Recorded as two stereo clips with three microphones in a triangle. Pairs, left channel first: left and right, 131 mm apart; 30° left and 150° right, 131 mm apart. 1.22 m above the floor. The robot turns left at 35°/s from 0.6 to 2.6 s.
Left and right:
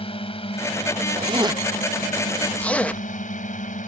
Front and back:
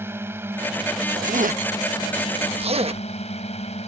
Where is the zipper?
140° right; by 3.0 s 170° left.